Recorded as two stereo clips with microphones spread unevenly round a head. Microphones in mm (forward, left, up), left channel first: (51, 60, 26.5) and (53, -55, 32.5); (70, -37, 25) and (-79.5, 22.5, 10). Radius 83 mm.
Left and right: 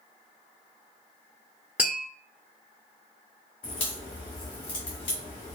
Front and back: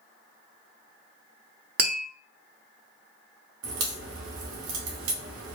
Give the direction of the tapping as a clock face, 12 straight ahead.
6 o'clock.